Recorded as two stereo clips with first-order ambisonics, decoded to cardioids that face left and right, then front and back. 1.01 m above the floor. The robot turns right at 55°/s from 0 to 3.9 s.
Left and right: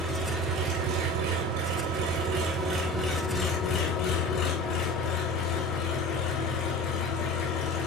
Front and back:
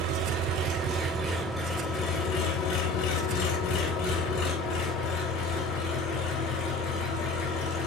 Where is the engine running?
175° right, 3 m; by 7.9 s 40° left, 3 m.